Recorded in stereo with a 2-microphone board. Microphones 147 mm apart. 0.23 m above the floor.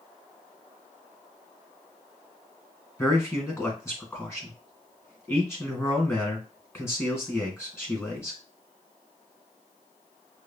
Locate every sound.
3.0 s a man speaking: 15° left (ahead or behind), 2.5 m